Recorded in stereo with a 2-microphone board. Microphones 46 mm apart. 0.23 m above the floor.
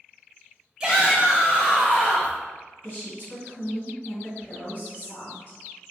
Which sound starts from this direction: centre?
A shout, at 0.8 s.